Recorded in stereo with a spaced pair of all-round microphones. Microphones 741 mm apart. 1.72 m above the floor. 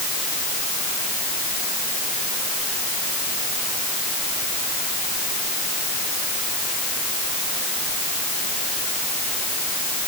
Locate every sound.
Only background noise.